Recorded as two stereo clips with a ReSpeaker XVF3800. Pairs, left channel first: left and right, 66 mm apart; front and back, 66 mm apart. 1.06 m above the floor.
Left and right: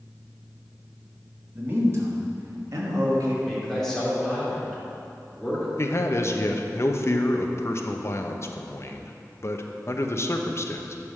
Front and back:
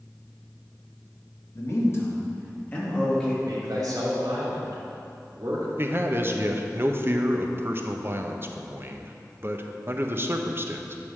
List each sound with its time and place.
1.5 s a man speaking: 35° right, 1.8 m; by 3.3 s 75° right, 2.5 m
3.4 s a man speaking: 170° left, 2.5 m
5.8 s a man speaking: 130° left, 0.6 m